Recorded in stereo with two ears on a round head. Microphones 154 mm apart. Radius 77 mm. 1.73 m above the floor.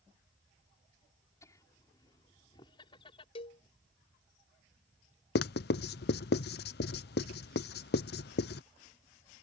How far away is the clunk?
I don't hear a clunk.